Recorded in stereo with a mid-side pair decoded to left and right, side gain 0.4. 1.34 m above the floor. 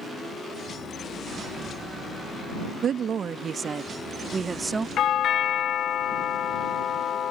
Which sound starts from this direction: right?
A woman speaking, at 2.8 s.